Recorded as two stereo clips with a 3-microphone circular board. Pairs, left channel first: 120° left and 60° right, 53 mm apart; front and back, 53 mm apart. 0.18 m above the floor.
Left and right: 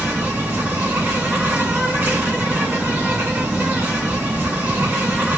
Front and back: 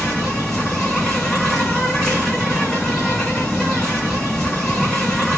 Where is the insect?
85° right, 2.5 m.